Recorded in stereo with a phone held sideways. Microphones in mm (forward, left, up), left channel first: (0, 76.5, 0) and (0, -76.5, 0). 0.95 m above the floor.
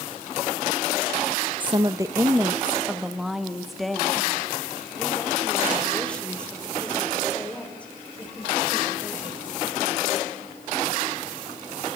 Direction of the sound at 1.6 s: 30° right (ahead or behind).